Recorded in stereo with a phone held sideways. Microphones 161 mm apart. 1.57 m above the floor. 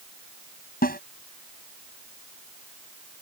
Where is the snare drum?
65° left (ahead or behind).